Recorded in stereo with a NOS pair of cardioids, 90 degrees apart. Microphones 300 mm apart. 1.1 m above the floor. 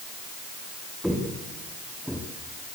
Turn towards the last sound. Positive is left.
turn(degrees=0)